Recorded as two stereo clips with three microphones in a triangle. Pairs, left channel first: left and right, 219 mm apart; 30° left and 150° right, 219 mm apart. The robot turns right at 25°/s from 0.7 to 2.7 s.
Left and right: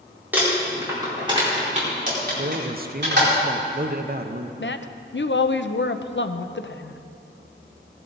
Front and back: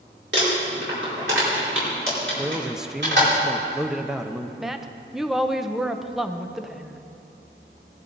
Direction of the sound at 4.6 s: 120° left.